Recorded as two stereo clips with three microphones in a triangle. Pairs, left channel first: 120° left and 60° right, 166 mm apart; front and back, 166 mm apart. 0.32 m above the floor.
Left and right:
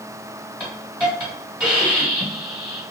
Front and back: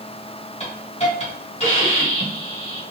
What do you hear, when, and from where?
0.6 s a hiss: 20° left, 2 m